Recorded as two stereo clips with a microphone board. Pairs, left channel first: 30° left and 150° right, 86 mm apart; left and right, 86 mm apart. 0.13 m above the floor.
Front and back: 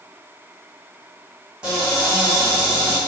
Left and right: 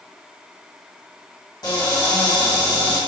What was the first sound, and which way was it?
A cupboard door, 130° left.